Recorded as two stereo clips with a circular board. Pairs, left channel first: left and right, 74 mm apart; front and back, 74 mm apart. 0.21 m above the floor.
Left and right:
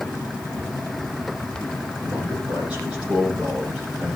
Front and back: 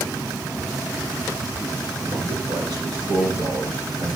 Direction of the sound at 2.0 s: 160° right.